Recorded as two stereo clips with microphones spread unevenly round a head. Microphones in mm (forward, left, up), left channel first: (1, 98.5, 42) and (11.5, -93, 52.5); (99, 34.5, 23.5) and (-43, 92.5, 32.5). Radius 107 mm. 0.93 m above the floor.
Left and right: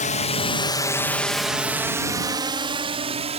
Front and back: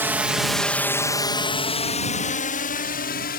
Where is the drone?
85° left; by 3.4 s 30° right.